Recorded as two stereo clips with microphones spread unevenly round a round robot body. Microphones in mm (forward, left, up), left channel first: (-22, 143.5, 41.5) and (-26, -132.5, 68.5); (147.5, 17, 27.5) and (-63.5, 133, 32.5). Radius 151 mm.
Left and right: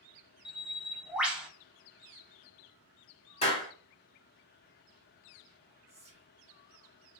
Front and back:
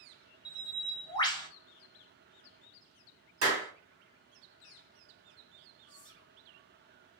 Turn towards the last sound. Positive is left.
turn(degrees=-55)